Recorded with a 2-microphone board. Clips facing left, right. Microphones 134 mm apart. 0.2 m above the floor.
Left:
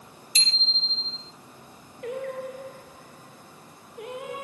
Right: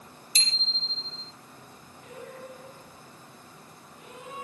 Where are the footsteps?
I don't hear footsteps.